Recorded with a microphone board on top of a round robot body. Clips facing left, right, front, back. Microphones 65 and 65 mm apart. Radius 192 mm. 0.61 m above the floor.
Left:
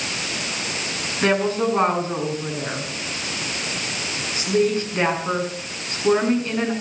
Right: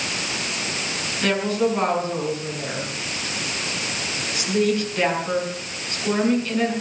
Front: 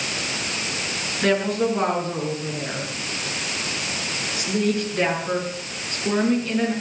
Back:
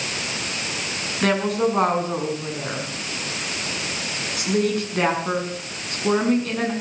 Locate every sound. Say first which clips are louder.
1.2 s a woman speaking: left 2 dB, even; 150° left, 6.5 m